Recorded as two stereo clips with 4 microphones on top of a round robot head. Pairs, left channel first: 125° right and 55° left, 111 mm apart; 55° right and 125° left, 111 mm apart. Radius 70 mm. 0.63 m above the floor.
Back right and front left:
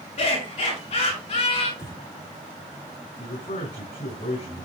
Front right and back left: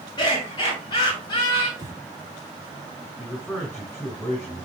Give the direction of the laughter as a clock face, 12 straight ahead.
4 o'clock.